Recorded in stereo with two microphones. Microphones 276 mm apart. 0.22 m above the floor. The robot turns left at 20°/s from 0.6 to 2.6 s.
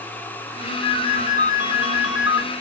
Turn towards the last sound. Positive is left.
turn(degrees=-165)